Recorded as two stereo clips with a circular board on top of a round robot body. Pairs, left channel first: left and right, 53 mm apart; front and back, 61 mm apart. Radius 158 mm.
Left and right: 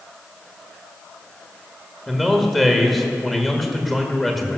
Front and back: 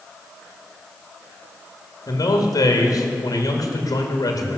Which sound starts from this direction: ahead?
A man speaking, at 2.1 s.